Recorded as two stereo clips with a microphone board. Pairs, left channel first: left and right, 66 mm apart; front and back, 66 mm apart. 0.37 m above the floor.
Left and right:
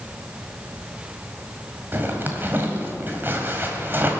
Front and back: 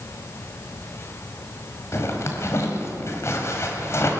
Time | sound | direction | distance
1.9 | a zipper | 35° right | 1.8 m